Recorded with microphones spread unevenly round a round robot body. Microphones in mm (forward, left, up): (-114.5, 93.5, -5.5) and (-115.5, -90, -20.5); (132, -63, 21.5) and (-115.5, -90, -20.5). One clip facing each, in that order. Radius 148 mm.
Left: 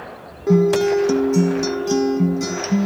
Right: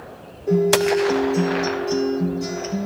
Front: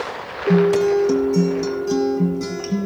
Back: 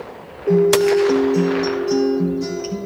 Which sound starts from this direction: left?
A guitar, at 0.5 s.